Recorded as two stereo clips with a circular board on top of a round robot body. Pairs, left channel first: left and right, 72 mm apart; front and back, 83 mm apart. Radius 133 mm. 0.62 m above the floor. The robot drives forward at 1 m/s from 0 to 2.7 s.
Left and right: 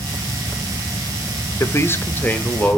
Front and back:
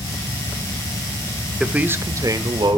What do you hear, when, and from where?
1.6 s a man speaking: 100° left, 1.0 m; by 2.8 s 155° left, 1.5 m